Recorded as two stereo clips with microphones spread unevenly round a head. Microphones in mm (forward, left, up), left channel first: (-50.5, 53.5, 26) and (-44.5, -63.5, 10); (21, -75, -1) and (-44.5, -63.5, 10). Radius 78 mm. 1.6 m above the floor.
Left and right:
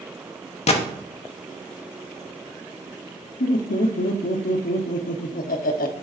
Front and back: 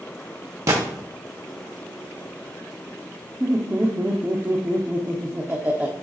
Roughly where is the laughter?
Left.